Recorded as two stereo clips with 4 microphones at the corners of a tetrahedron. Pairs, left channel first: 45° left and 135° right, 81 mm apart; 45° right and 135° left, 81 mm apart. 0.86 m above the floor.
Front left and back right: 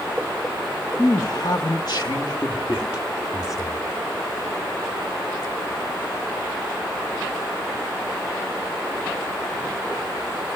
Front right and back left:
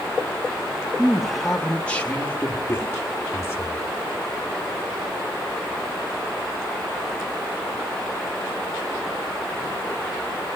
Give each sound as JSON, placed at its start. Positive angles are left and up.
{"t": 1.0, "sound": "a man speaking", "azimuth_deg": 60, "distance_m": 1.3}